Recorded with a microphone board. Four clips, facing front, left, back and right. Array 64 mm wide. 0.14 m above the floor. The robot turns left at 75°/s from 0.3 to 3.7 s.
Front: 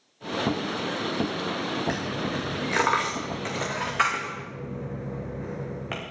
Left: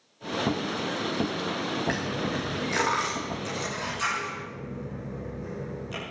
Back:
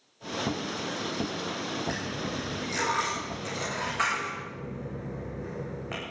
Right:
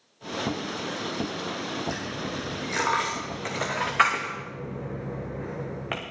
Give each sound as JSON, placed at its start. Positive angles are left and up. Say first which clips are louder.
{"t": 1.9, "sound": "a dropped coin", "louder": "left 3 dB, front 4 dB", "azimuth_deg": 70, "distance_m": 3.5}